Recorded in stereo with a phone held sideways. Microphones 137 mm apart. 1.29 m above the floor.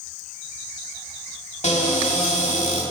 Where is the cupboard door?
50° left (ahead or behind), 1.7 m.